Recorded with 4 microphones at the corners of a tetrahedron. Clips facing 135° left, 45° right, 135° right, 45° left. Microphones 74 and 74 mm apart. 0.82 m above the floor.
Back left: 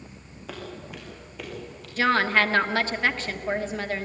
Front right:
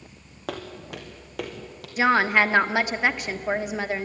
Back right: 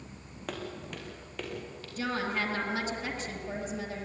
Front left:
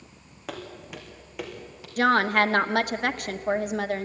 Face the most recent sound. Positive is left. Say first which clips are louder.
# front right 2 dB, front left 11 dB
turn(degrees=25)